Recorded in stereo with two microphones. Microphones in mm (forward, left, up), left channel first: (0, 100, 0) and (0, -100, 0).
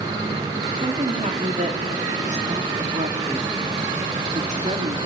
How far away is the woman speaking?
About 2 m.